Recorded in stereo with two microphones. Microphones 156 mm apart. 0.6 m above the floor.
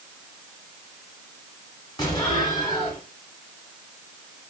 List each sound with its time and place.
2.0 s an explosion: 30° left (ahead or behind), 1.5 m